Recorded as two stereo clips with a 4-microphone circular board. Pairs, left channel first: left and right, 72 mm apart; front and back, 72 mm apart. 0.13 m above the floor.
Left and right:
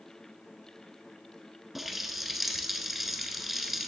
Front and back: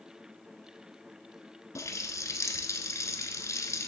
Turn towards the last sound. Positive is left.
turn(degrees=-5)